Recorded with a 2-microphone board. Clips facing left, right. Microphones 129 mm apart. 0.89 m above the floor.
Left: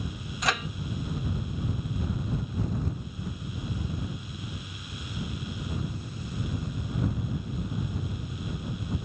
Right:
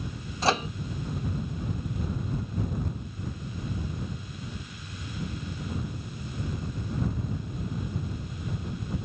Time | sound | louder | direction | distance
0.4 | a microwave | right 5 dB | 30° right (ahead or behind) | ?